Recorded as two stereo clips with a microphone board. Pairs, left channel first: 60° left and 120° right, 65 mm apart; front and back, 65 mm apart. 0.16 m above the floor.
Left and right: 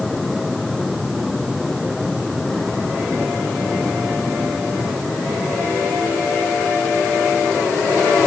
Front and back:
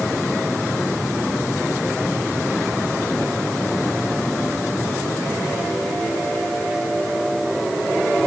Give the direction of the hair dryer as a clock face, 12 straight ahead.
No hair dryer in this recording.